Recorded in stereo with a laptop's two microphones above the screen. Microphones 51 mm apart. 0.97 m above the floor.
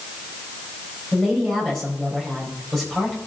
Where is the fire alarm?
I don't hear a fire alarm.